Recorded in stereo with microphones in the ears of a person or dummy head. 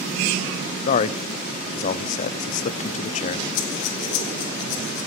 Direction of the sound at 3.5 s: 45° left (ahead or behind).